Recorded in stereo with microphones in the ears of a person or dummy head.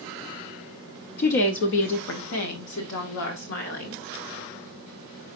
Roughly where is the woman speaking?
Left.